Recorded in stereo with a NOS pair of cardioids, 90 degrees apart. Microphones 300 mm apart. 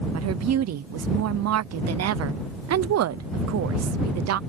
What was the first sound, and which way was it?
A woman speaking, 60° right.